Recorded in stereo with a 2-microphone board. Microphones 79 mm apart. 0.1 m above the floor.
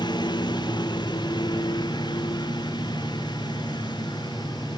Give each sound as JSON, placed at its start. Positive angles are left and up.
{"t": 0.0, "sound": "a lawn mower", "side_deg": 70}